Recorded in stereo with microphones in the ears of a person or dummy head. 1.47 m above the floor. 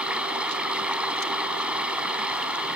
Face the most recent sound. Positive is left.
turn(degrees=-5)  # may be behind; listen again after turning